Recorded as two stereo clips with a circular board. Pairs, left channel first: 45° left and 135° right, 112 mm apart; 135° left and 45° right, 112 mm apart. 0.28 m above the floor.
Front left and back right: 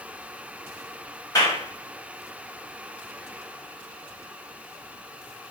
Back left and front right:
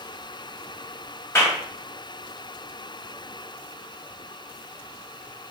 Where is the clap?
80° left, 1.3 m.